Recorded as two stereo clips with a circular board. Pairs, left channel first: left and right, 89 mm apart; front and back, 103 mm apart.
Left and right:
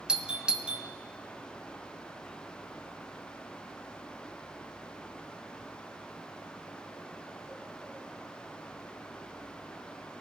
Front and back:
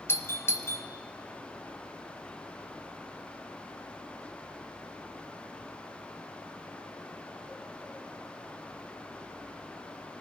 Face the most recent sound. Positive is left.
turn(degrees=-25)